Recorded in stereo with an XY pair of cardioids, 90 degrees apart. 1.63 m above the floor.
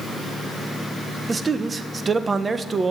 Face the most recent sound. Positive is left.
turn(degrees=-35)